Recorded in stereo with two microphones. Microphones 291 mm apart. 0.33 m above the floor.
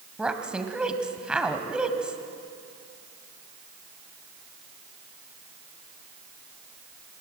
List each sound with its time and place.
0.2 s a woman speaking: 5° right (ahead or behind), 1.7 m